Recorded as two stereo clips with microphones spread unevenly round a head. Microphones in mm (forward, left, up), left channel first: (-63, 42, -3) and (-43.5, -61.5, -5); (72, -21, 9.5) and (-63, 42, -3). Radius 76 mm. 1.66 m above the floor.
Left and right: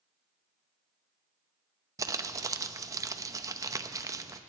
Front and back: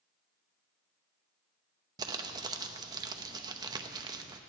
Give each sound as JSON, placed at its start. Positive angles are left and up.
{"t": 2.0, "sound": "crumpling", "azimuth_deg": -140, "distance_m": 0.7}